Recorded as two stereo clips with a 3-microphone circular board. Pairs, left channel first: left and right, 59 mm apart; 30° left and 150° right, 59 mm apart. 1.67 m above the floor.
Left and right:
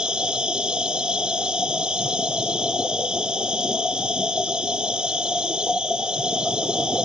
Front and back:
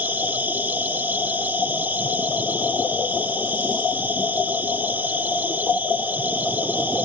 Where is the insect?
150° right.